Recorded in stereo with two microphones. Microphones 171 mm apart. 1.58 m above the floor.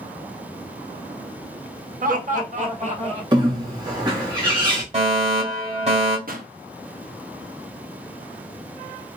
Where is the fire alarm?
40° right (ahead or behind), 1.7 m.